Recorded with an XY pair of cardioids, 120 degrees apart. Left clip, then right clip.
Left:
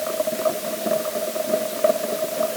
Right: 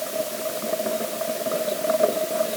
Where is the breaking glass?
I don't hear breaking glass.